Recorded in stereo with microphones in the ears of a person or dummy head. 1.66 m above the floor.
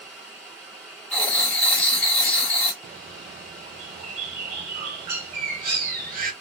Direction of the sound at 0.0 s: 5° right (ahead or behind).